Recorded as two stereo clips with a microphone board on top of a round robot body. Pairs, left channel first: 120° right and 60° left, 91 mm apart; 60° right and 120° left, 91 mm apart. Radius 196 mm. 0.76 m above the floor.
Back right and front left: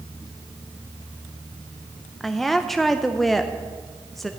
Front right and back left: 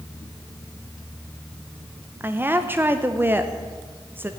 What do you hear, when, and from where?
2.2 s a woman speaking: 155° left, 1.0 m